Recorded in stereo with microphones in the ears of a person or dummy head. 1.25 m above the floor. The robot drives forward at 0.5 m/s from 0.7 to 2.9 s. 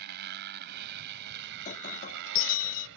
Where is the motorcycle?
55° right (ahead or behind); by 3.0 s 70° right (ahead or behind).